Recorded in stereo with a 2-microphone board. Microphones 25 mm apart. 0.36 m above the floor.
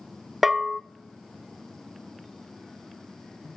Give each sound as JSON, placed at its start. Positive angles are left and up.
{"t": 0.4, "sound": "a bell", "side_deg": -10, "distance_m": 0.5}